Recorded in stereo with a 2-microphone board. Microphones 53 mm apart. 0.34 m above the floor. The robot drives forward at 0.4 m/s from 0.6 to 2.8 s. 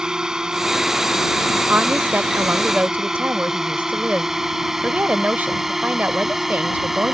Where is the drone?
15° right (ahead or behind); by 7.1 s 5° right (ahead or behind).